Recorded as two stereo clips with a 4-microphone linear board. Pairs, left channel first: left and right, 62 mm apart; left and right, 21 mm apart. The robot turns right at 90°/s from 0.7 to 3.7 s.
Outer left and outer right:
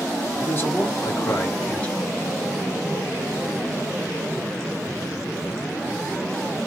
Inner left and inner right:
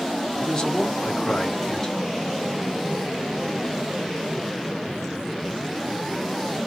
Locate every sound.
0.4 s a man speaking: 50° left, 1.3 m; by 2.1 s 175° left, 1.3 m